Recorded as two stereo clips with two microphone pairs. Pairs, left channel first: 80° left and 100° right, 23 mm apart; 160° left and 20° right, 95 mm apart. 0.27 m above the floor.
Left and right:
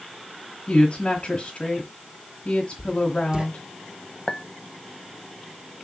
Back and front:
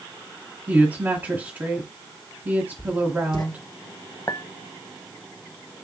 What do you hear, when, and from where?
0.7 s a woman speaking: 40° left, 1.7 m
2.8 s writing: 155° right, 1.4 m
4.3 s a clink: 125° left, 0.9 m